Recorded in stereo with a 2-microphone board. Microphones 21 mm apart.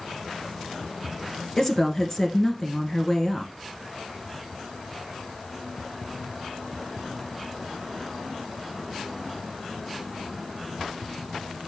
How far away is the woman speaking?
About 1.3 m.